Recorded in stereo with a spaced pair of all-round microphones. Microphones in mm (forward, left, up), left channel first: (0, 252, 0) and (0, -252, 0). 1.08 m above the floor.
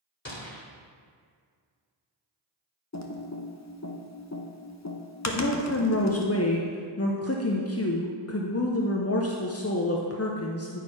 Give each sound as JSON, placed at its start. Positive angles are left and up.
{"t": 0.2, "sound": "a gunshot", "side_deg": 25, "distance_m": 1.5}
{"t": 2.9, "sound": "typing on a keyboard", "side_deg": 35, "distance_m": 0.7}
{"t": 5.2, "sound": "a woman speaking", "side_deg": 30, "distance_m": 0.5}